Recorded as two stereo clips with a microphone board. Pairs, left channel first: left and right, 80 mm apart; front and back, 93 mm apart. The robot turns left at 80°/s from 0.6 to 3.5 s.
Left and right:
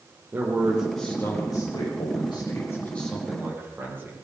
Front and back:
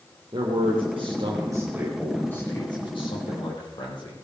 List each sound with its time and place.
0.3 s a man speaking: 155° right, 6.5 m; by 4.2 s 30° right, 6.5 m